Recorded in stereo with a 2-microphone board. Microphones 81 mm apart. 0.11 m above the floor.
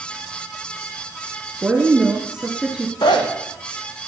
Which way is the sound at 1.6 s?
10° right (ahead or behind).